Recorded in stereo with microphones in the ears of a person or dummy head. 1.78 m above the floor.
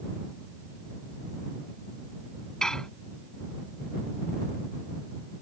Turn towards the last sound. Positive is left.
turn(degrees=0)  # may be behind; listen again after turning